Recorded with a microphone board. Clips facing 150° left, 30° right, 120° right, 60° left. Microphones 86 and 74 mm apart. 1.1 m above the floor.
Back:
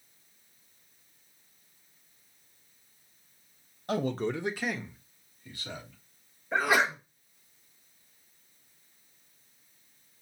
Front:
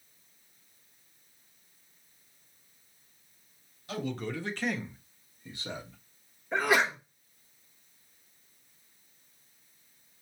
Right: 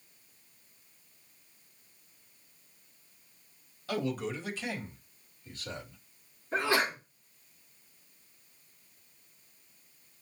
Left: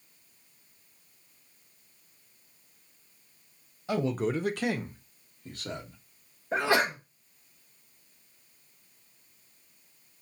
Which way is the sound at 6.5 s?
65° left.